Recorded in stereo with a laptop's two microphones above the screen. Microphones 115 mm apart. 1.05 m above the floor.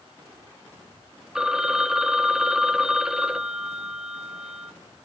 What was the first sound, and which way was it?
A phone ringing, 5° right (ahead or behind).